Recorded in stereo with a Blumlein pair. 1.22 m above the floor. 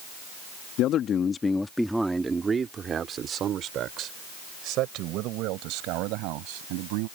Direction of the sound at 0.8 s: 35° left.